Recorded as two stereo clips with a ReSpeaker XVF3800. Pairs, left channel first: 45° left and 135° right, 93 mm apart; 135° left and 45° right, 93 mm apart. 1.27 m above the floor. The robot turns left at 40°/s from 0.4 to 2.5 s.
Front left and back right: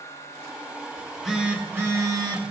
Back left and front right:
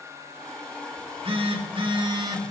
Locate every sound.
1.0 s a phone buzzing: 35° right, 2 m; by 2.5 s 95° right, 2 m